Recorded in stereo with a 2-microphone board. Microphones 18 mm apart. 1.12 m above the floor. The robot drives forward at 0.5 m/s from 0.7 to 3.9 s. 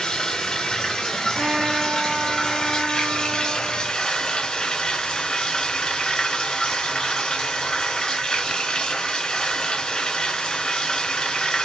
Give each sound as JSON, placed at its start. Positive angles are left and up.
{"t": 0.0, "sound": "running water", "side_deg": 45, "distance_m": 2.5}
{"t": 1.4, "sound": "a trumpet", "side_deg": -65, "distance_m": 2.5}